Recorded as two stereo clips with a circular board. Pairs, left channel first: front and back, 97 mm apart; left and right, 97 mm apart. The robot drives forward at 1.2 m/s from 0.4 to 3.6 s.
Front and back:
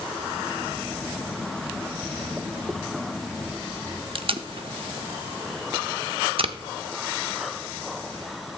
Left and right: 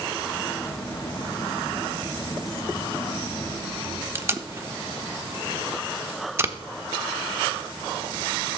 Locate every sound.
4.2 s tape being pulled: 155° right, 0.6 m